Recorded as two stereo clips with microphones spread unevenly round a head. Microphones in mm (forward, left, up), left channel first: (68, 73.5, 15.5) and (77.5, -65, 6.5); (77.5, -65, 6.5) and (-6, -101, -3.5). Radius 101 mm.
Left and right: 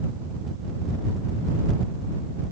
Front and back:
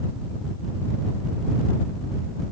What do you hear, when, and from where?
Only background noise.